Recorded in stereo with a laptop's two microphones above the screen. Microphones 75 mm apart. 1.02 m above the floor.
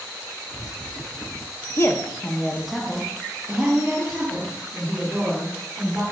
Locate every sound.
1.8 s a woman speaking: 40° left (ahead or behind), 0.5 m; by 6.0 s 35° right (ahead or behind), 2.5 m